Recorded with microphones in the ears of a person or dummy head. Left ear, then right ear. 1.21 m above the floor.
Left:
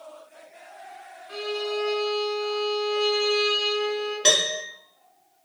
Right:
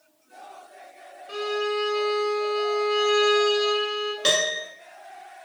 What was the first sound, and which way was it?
A violin, 50° right (ahead or behind).